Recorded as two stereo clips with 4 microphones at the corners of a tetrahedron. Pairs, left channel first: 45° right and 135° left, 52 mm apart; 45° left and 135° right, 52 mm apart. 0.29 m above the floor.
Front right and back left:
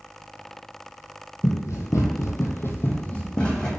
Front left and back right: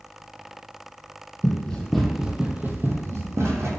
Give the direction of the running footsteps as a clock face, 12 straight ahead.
1 o'clock.